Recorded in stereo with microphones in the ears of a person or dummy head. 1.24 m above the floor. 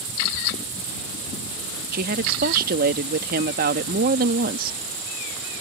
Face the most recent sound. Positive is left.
turn(degrees=-50)  # may be behind; listen again after turning